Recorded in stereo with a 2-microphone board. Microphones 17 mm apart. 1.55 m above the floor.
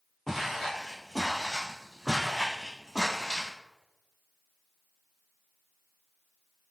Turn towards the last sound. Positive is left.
turn(degrees=-35)  # may be behind; listen again after turning